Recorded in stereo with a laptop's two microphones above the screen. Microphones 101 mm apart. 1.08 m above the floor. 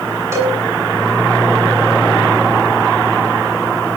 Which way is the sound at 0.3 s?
30° right (ahead or behind).